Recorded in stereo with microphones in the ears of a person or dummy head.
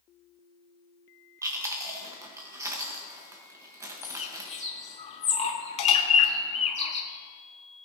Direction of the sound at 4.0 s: 30° left (ahead or behind).